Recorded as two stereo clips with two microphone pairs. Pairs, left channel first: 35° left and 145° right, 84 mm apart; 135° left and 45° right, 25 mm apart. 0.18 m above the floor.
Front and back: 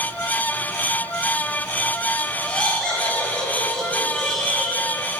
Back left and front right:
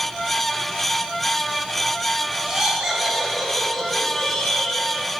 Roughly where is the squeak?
No squeak in this recording.